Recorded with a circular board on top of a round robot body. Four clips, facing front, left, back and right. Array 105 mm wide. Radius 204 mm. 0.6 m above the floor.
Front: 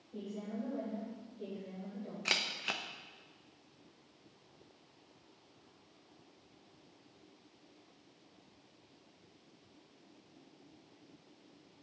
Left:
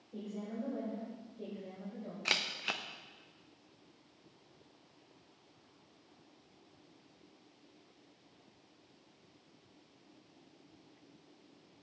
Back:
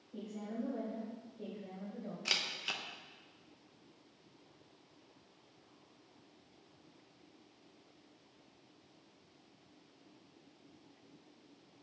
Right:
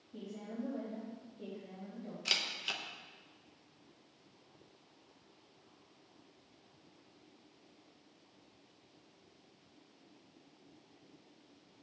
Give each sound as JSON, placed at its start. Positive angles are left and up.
{"t": 0.1, "sound": "a woman speaking", "azimuth_deg": 85, "distance_m": 3.5}
{"t": 2.2, "sound": "a camera shutter", "azimuth_deg": 65, "distance_m": 1.0}